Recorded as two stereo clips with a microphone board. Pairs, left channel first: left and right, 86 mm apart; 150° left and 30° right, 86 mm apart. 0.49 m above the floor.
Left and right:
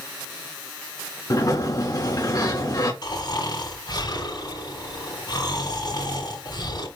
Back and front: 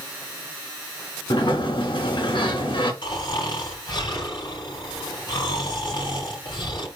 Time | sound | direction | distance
1.3 | a sliding door | 130° left | 3 m
3.0 | snoring | 120° left | 5.5 m